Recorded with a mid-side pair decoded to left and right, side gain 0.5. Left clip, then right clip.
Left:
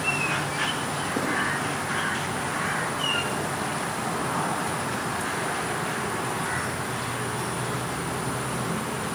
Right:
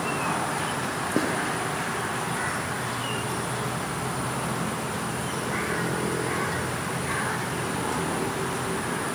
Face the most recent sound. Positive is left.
turn(degrees=-65)